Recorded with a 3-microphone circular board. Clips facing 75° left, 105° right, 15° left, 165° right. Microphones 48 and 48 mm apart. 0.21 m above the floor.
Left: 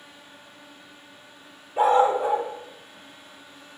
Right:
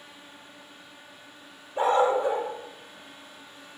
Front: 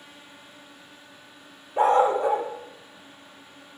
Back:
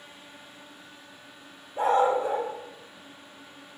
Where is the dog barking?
Straight ahead, 1.9 m.